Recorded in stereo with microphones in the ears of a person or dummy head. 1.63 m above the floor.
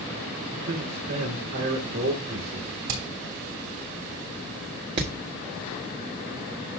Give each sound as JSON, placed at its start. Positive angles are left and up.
{"t": 0.5, "sound": "a man speaking", "side_deg": -90, "distance_m": 2.5}
{"t": 2.9, "sound": "hammering", "side_deg": -75, "distance_m": 3.0}
{"t": 5.0, "sound": "hammering", "side_deg": -25, "distance_m": 1.2}